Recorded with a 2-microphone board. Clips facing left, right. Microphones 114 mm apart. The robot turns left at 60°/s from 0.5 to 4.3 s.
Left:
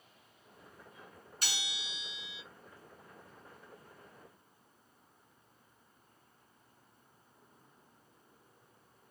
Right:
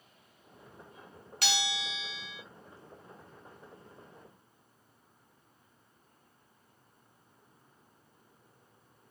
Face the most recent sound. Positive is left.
turn(degrees=115)